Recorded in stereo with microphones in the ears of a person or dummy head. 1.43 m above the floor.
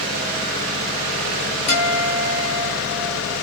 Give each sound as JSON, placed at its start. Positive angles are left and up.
{"t": 1.7, "sound": "a guitar", "side_deg": 35, "distance_m": 2.0}